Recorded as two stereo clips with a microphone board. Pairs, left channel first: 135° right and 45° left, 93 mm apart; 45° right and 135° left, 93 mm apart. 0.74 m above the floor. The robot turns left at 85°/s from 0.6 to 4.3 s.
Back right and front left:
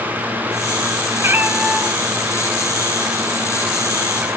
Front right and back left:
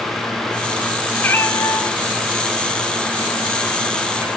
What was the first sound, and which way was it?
A cat meowing, 10° left.